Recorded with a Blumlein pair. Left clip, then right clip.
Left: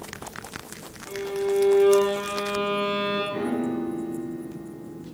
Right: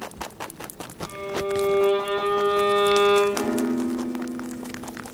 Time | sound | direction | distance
1.1 | a violin | 70° right | 4.5 m
3.3 | a piano | 60° right | 4 m